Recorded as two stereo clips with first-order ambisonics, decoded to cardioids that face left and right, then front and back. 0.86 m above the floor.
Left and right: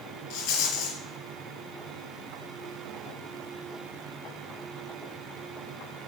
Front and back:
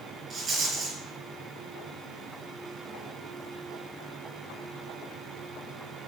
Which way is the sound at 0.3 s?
110° left.